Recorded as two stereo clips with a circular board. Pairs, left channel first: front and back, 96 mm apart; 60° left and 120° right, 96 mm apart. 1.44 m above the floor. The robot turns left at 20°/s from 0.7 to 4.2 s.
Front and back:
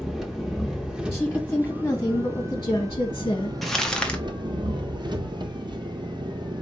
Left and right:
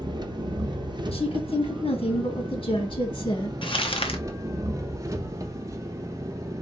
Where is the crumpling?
90° left, 1.0 m; by 4.2 s 75° left, 1.0 m.